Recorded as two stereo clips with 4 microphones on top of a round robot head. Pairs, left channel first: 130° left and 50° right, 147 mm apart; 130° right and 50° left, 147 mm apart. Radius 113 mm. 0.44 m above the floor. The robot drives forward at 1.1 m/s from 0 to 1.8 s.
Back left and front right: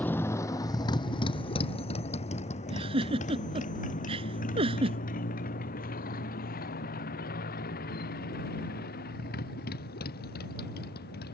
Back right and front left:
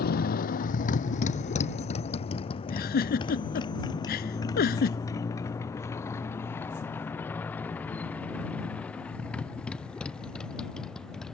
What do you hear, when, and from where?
0.0 s a motorcycle: 150° right; by 11.3 s 145° left
2.7 s a giggle: 105° right